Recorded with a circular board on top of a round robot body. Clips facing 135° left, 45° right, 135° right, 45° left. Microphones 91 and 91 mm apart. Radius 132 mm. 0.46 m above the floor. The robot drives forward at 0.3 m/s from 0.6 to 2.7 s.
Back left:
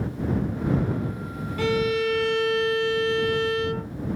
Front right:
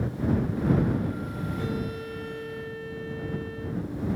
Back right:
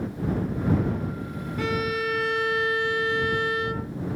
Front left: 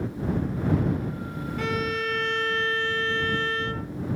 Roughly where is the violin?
Behind left.